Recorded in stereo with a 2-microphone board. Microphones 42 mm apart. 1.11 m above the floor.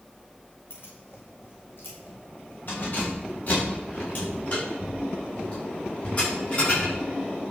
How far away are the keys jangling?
About 3 m.